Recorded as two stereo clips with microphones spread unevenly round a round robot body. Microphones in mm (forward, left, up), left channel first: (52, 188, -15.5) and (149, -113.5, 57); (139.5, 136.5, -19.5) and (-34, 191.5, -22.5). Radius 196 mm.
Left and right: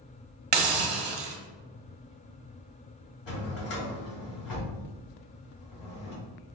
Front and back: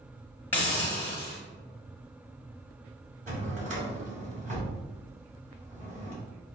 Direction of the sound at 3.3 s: 115° left.